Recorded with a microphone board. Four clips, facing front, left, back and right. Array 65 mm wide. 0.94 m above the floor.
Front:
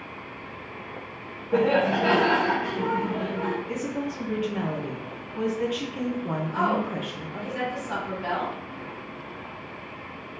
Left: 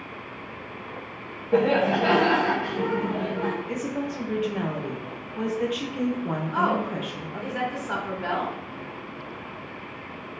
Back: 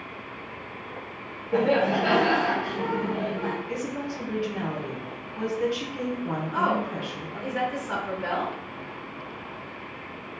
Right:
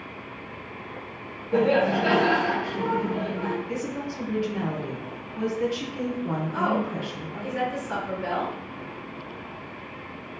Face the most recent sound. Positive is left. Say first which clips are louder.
# left 2 dB, even
turn(degrees=110)